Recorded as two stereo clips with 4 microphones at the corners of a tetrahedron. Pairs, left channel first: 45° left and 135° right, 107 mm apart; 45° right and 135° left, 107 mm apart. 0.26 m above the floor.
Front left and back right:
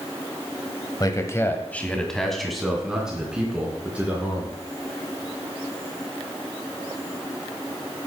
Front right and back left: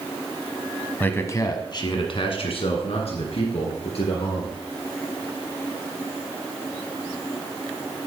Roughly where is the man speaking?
Ahead.